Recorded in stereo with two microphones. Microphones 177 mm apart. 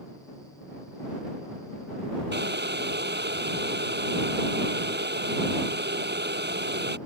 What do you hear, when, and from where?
2.3 s boiling: 75° right (ahead or behind)